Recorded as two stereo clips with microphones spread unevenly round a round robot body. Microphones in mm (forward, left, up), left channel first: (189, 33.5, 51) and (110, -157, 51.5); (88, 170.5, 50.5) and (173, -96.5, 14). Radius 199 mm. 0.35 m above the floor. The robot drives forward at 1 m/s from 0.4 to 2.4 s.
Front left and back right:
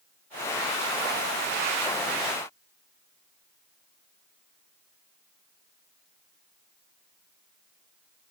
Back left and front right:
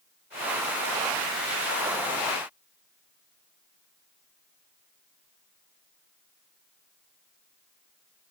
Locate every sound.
Only background noise.